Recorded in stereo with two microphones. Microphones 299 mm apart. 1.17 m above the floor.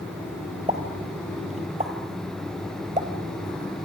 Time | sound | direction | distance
0.7 | a pop | 25° right (ahead or behind) | 3 m